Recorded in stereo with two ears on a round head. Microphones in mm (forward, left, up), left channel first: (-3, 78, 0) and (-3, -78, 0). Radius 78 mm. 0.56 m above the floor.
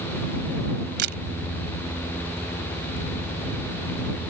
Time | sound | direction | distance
1.0 | a camera shutter | 65° right (ahead or behind) | ?